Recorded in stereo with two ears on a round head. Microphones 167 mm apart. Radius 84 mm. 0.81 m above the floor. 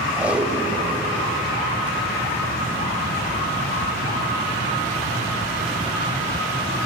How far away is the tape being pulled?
About 4.5 m.